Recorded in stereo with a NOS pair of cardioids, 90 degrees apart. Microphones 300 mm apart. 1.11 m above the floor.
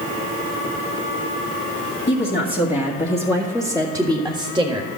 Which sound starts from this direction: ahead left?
A woman speaking, at 2.1 s.